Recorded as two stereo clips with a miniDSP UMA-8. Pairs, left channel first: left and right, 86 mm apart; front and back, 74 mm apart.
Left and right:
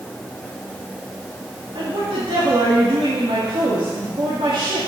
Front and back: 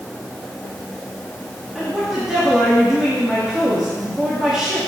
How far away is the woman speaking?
About 2.5 m.